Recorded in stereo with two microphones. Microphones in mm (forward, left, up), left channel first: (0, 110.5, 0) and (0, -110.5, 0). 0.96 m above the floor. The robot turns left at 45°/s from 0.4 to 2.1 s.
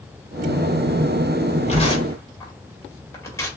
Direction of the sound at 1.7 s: 35° left (ahead or behind).